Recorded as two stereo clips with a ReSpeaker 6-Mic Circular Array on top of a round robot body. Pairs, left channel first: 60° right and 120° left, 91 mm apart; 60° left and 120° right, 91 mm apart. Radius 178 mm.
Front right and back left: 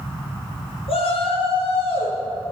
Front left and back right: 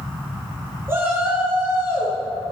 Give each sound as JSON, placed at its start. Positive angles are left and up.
{"t": 0.9, "sound": "a shout", "azimuth_deg": -55, "distance_m": 6.5}